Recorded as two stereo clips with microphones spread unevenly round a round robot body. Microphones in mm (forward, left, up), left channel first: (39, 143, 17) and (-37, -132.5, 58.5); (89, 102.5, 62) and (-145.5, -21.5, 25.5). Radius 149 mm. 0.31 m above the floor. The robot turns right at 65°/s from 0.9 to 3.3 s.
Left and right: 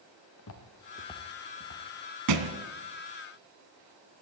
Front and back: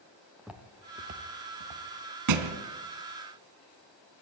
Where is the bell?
No bell in this recording.